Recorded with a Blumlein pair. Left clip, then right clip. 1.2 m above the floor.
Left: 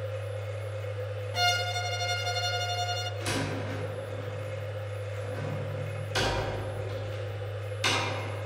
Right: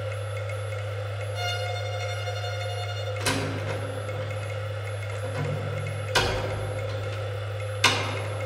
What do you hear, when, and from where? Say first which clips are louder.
0.0 s a machine running: right 3 dB; 60° right, 1.9 m
1.3 s a violin: left 4 dB; 70° left, 0.5 m
3.2 s a door slam: right 4 dB; 70° right, 2 m